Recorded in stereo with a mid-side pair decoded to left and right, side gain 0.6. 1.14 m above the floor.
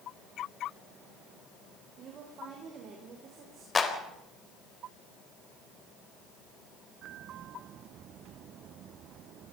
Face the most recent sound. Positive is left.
turn(degrees=25)